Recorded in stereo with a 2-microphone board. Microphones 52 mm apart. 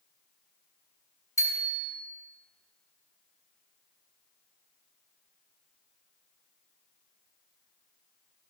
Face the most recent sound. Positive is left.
turn(degrees=65)  # may be behind; listen again after turning